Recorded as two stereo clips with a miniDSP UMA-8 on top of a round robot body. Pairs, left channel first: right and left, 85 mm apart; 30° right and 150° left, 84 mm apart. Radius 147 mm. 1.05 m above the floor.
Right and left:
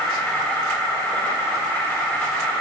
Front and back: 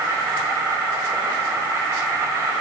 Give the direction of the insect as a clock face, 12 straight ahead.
5 o'clock.